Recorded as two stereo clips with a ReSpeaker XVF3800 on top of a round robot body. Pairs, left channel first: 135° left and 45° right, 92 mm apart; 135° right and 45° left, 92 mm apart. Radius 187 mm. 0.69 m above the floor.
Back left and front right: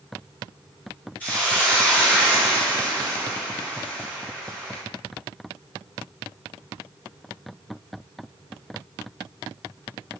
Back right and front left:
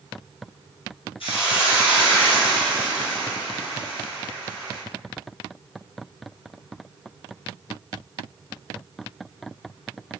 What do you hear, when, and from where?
1.2 s a hiss: 150° right, 2 m